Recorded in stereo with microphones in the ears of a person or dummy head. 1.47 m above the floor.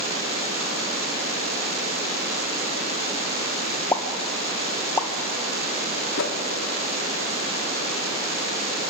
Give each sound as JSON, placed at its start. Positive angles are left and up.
{"t": 3.9, "sound": "a pop", "side_deg": 15, "distance_m": 1.4}
{"t": 6.2, "sound": "a whoosh", "side_deg": 65, "distance_m": 2.0}